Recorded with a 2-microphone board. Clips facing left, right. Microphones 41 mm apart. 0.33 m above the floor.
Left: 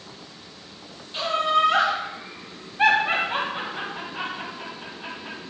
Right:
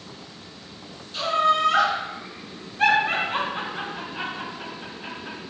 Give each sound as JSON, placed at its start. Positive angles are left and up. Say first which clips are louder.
{"t": 1.1, "sound": "laughter", "louder": "right 1 dB", "side_deg": 20, "distance_m": 1.4}